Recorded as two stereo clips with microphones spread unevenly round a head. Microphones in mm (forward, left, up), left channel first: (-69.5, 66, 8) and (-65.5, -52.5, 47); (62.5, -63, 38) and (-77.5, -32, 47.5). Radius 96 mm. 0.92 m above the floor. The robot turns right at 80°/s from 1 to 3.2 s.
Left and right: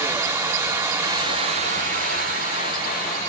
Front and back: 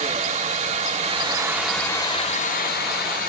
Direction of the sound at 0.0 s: 155° right.